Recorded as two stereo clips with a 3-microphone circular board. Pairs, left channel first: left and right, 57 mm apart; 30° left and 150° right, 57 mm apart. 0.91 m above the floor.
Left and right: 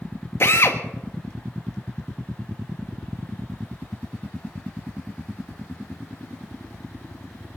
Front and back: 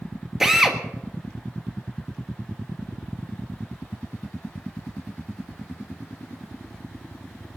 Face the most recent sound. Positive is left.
turn(degrees=130)